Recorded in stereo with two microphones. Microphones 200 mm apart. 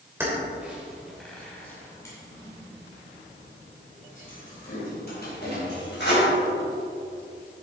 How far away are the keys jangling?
About 2.5 m.